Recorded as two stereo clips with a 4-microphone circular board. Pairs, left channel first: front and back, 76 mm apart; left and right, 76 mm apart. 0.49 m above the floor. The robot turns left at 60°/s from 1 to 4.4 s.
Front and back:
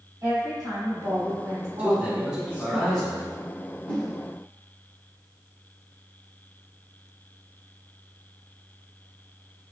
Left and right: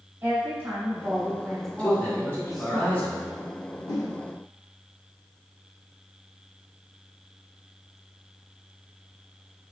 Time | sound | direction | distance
0.2 | a woman speaking | 145° right | 1.9 m
1.8 | a man speaking | 145° left | 1.0 m
3.9 | a whoosh | 80° left | 1.0 m